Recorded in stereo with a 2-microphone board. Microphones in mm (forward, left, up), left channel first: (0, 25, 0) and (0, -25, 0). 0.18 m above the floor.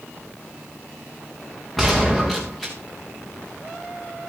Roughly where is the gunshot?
Centre.